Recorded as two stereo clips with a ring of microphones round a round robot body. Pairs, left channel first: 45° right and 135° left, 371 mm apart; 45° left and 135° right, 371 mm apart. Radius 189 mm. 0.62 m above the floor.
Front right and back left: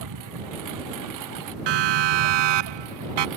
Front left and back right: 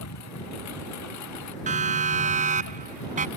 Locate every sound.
0.0 s a lawn mower: 95° left; by 3.4 s 90° left
1.7 s a siren: 155° left